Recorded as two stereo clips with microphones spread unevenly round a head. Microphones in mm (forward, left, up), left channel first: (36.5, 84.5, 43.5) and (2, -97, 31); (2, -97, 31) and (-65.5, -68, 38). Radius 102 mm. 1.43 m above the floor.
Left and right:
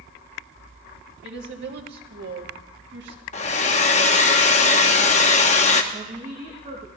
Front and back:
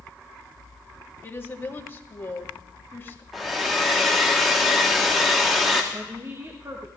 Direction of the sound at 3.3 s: 75° left.